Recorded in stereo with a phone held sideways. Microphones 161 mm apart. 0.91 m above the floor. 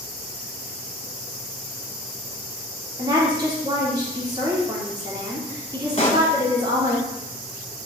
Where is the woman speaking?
25° right (ahead or behind), 2.5 m.